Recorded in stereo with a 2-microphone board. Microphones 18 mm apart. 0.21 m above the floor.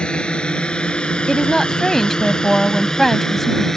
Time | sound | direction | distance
0.0 | a drone | 65° left (ahead or behind) | ?
1.3 | a woman speaking | 15° left (ahead or behind) | ?